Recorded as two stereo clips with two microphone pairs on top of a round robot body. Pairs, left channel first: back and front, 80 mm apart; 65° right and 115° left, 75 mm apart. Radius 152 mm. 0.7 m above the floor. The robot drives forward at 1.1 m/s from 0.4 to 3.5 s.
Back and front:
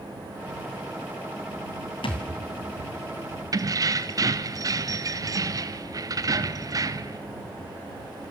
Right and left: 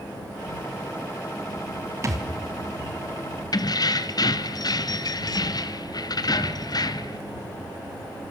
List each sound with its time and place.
2.0 s a thud: 160° left, 2.5 m; by 2.3 s 165° left, 2.5 m
3.5 s keys jangling: 40° right, 1.0 m